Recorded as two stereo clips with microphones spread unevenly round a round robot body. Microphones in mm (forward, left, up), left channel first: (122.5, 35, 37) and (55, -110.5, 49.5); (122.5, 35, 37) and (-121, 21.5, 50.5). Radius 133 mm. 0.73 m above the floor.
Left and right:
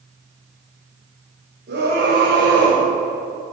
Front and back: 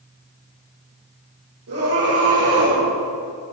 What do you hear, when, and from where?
1.7 s a scream: 155° right, 4 m; by 2.8 s 160° right, 5.5 m